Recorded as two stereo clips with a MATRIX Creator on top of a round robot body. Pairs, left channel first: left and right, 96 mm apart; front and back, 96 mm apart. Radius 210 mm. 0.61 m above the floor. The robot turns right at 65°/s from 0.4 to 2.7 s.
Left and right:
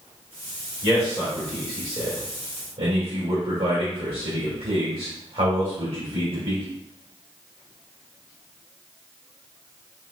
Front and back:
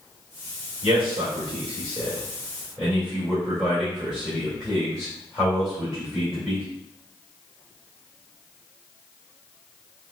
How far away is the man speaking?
About 2.5 m.